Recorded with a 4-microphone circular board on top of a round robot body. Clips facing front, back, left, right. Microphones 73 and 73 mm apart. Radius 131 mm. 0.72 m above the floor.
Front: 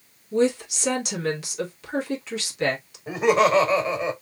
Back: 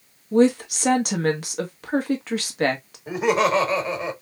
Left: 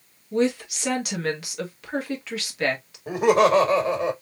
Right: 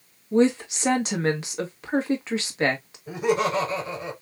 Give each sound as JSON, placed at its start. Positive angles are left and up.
{"t": 0.3, "sound": "a woman speaking", "azimuth_deg": -150, "distance_m": 1.5}
{"t": 3.1, "sound": "laughter", "azimuth_deg": 90, "distance_m": 1.6}